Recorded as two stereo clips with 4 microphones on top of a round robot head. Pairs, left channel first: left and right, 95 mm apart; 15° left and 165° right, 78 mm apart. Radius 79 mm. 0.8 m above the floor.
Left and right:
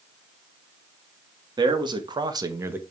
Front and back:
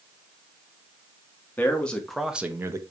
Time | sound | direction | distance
1.6 | a man speaking | 55° right | 1.9 m